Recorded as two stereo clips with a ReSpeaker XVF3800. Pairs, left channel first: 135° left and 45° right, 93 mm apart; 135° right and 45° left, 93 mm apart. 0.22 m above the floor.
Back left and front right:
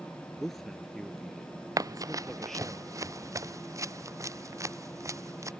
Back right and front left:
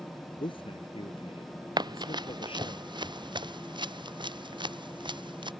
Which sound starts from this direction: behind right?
A man speaking, at 0.4 s.